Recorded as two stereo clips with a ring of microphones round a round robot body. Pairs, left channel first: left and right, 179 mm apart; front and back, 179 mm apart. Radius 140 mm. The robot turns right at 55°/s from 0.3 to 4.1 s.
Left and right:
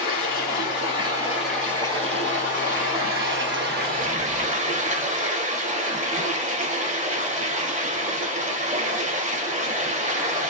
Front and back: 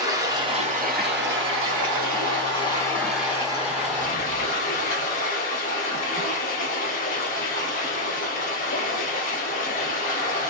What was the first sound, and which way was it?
Running water, 110° left.